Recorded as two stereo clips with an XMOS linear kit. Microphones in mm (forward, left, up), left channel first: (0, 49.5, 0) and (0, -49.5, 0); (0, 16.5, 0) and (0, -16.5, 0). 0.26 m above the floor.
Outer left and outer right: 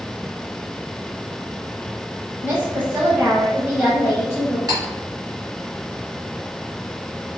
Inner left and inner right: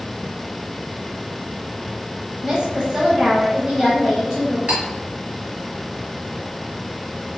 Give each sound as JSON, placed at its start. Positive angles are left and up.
{"t": 2.4, "sound": "a woman speaking", "side_deg": -20, "distance_m": 1.2}
{"t": 4.7, "sound": "cutlery clinking", "side_deg": -45, "distance_m": 1.1}